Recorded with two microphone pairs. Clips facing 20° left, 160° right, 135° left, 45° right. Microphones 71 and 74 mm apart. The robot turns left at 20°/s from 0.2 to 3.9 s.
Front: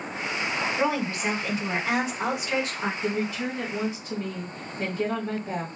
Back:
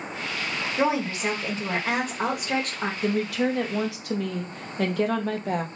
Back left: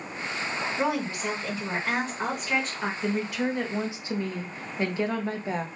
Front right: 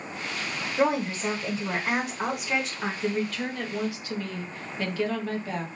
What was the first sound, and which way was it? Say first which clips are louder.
A woman speaking: back 4 dB, front right 5 dB; 95° right.